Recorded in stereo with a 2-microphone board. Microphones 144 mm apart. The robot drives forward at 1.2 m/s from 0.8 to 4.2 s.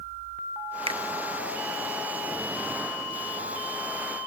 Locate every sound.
0.9 s a finger snap: 40° right (ahead or behind), 0.5 m; by 1.0 s 30° right (ahead or behind), 0.7 m